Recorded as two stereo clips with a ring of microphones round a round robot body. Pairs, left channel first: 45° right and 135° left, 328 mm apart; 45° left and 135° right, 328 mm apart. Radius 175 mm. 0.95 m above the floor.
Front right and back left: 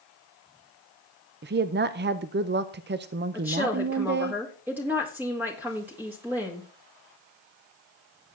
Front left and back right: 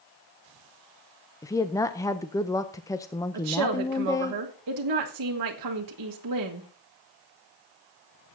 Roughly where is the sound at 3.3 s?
Behind right.